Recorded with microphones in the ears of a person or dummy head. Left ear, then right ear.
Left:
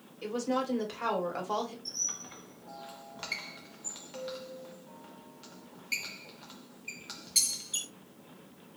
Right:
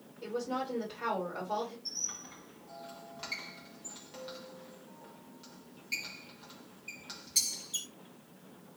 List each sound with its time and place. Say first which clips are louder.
0.2 s a woman speaking: left 3 dB; 65° left (ahead or behind), 1.5 m
1.9 s a squeak: left 3 dB; 20° left (ahead or behind), 0.7 m